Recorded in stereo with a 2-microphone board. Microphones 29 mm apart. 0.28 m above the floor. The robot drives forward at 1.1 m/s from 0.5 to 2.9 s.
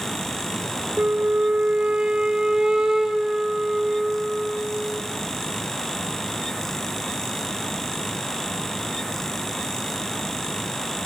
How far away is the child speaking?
I don't hear a child speaking.